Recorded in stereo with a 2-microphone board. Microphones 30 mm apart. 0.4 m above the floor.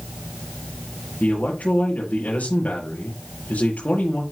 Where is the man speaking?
55° left (ahead or behind), 7 m.